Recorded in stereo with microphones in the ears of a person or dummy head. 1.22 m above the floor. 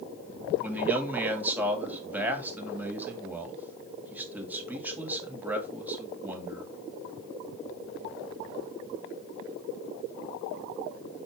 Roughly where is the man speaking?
Centre.